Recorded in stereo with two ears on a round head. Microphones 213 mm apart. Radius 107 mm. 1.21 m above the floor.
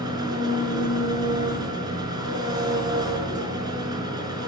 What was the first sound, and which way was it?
An engine running, 20° right (ahead or behind).